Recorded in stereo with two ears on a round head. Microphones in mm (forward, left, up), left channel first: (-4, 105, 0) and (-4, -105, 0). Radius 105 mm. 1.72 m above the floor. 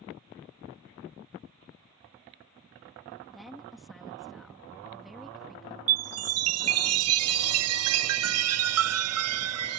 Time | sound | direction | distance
3.3 | a woman speaking | centre (ahead or behind) | ?
5.9 | a chime | 65° right (ahead or behind) | ?